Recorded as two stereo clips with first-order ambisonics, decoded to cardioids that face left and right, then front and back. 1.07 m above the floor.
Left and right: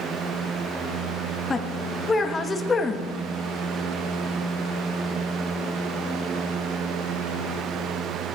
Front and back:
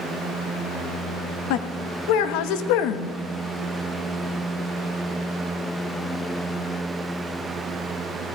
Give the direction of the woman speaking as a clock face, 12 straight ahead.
12 o'clock.